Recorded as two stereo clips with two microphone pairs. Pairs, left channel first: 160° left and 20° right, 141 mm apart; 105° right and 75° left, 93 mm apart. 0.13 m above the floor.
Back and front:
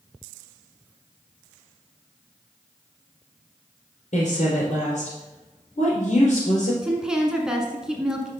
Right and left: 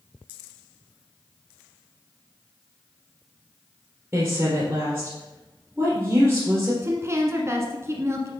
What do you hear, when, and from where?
4.1 s a woman speaking: 140° left, 2.5 m
6.8 s a woman speaking: 55° left, 1.2 m